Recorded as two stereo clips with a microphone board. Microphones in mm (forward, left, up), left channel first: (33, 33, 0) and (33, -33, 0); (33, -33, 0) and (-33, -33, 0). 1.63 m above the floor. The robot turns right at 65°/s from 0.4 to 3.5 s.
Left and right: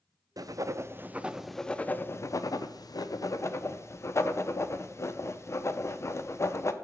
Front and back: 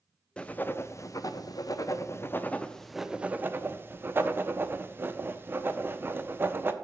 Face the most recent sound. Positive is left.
turn(degrees=130)